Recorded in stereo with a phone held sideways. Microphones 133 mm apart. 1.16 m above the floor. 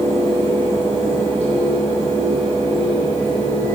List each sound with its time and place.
0.0 s a fan: 50° left (ahead or behind), 3 m